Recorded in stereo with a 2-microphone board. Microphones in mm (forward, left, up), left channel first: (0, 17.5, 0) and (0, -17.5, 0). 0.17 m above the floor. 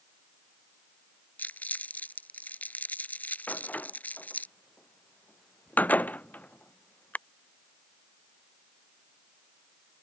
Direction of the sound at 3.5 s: 50° left (ahead or behind).